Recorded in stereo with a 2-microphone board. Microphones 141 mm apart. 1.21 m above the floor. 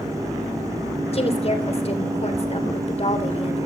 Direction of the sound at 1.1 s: 45° left (ahead or behind).